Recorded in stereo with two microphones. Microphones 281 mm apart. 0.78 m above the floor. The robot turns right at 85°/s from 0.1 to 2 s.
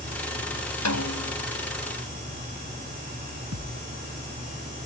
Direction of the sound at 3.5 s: 65° right (ahead or behind).